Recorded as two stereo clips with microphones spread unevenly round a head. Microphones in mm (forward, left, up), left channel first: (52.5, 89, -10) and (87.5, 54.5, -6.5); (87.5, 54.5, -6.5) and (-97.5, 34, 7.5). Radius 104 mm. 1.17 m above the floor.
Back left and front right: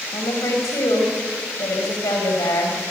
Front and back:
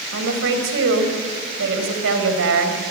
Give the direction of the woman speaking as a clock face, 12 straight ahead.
6 o'clock.